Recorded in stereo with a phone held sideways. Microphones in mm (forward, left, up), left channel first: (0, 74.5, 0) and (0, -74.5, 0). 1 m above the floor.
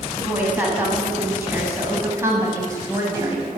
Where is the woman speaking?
10° right (ahead or behind), 8.5 m; by 3.6 s 25° right (ahead or behind), 6.5 m.